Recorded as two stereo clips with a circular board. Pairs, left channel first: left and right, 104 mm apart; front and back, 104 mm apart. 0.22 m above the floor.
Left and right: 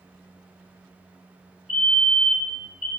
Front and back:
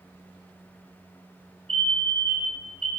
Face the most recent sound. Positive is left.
turn(degrees=-165)